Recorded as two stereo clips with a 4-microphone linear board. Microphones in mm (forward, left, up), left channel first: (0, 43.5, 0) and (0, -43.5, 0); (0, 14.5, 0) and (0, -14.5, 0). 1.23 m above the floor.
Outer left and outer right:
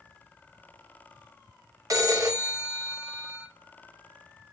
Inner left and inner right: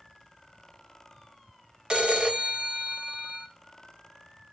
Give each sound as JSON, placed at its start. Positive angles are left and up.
{"t": 1.9, "sound": "a phone ringing", "side_deg": -40, "distance_m": 0.5}